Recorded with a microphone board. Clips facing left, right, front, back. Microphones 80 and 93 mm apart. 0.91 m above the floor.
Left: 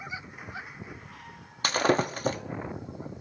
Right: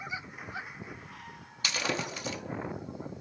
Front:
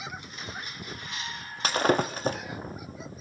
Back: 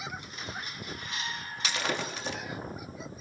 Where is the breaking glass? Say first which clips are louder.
Left 9 dB, front 9 dB; 45° left, 0.6 m.